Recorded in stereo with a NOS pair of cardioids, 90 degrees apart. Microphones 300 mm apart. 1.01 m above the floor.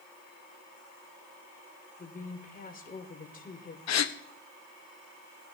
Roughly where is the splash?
No splash in this recording.